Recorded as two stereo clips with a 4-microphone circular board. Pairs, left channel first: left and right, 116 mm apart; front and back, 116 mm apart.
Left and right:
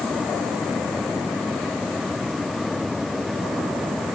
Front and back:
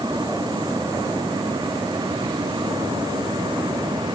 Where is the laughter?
No laughter in this recording.